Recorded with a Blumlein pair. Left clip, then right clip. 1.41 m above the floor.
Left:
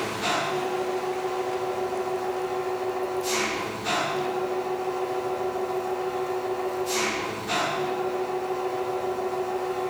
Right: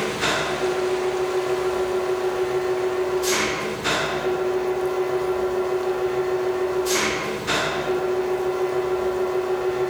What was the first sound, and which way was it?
An engine running, 25° right.